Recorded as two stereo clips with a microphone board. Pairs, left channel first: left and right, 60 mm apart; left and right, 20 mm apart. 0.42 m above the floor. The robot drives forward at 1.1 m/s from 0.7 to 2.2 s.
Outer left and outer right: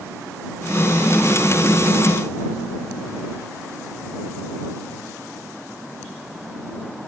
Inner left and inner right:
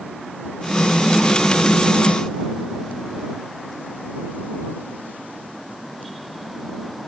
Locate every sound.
Only background noise.